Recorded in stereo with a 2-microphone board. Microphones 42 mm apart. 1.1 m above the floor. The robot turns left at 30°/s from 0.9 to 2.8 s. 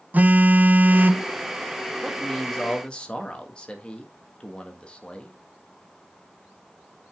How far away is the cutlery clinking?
I don't hear cutlery clinking.